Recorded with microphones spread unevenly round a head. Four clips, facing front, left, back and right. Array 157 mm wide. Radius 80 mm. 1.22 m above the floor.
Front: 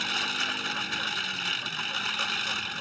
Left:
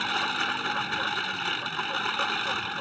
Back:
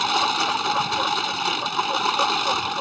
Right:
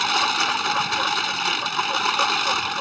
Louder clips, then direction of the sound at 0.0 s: Right 7 dB, back 12 dB; 165° right.